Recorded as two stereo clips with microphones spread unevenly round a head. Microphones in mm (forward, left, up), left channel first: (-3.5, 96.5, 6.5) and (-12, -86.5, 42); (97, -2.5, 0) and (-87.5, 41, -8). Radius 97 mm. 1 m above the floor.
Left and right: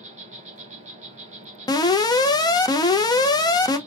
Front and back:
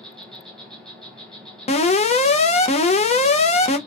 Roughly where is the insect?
Right.